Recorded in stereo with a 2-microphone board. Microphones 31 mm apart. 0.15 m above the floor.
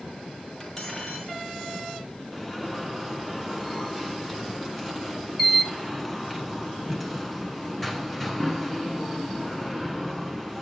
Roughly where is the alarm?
Centre.